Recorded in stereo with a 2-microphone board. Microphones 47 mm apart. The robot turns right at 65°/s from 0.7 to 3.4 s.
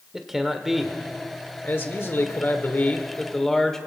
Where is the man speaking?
5° right, 1.2 m; by 3.9 s 170° left, 1.2 m.